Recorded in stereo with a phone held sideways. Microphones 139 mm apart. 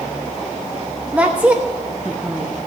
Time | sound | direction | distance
1.1 | a woman speaking | 10° right (ahead or behind) | 0.9 m